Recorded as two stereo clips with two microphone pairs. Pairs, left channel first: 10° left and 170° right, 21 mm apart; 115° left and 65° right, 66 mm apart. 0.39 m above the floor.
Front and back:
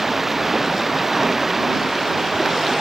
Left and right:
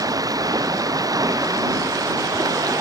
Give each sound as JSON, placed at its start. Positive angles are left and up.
{"t": 0.0, "sound": "running water", "azimuth_deg": -90}